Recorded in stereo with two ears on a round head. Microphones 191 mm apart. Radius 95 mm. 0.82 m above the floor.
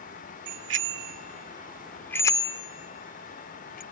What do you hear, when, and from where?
0.5 s a bicycle bell: 70° right (ahead or behind); by 3.8 s 45° left (ahead or behind)